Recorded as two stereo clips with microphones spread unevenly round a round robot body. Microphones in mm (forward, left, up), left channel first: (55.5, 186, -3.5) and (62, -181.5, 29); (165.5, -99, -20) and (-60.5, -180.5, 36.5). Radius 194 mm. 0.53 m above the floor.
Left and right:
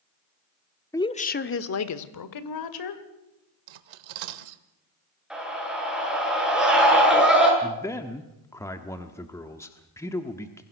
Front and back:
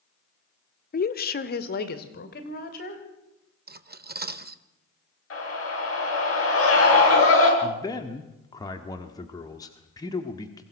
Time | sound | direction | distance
0.9 | a woman speaking | 15° left | 1.1 m
3.7 | cutlery clinking | 105° right | 1.2 m
5.3 | a scream | straight ahead | 10 m
7.6 | a man speaking | 25° left | 1.3 m